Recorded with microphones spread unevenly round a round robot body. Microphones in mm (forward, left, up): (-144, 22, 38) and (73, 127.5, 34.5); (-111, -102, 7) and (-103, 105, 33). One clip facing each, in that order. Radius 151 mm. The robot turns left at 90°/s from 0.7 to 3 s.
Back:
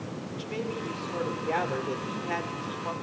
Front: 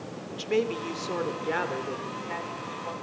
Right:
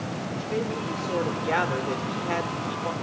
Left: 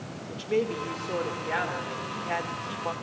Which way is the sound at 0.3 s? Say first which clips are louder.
Front 8 dB, left 3 dB; 25° left.